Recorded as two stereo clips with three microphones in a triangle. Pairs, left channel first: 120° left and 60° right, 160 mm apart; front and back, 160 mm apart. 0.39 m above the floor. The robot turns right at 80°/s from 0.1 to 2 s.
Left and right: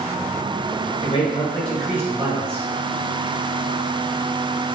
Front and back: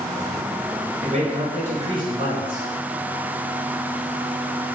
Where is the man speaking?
150° left, 1.5 m; by 2.6 s 130° right, 1.5 m.